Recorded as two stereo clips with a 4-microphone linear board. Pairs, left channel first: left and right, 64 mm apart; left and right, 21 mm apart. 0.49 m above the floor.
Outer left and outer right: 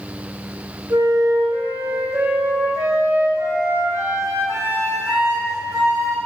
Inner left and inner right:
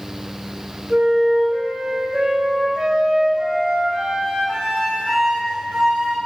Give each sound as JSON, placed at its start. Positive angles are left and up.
{"t": 0.9, "sound": "a flute", "side_deg": -55, "distance_m": 2.0}